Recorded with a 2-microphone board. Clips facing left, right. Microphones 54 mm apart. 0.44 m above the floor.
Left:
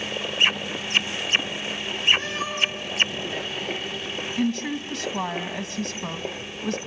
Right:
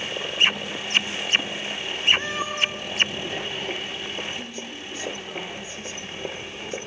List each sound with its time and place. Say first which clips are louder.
2.2 s a cat meowing: even; 25° right (ahead or behind), 6 m
4.4 s a woman speaking: left 10 dB; 70° left (ahead or behind), 3 m